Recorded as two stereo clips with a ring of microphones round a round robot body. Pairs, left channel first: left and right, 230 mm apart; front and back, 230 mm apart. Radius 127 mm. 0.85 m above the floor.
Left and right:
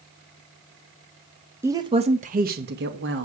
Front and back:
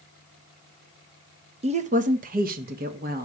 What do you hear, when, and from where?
1.6 s a woman speaking: 160° right, 0.6 m; by 3.2 s 130° right, 1.2 m